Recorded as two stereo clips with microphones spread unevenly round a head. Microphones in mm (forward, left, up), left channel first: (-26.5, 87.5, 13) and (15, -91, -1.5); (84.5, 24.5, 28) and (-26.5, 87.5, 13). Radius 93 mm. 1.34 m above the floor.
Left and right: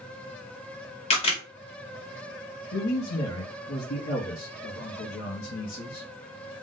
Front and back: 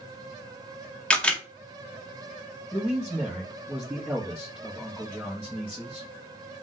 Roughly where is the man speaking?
Left.